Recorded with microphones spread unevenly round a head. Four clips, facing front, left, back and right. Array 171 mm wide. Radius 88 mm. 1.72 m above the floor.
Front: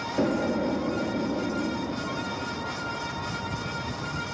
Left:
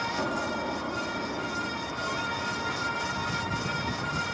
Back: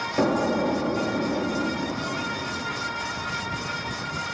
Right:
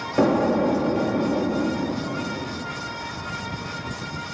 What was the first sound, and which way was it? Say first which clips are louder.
An explosion: right 11 dB, back 3 dB; 110° right.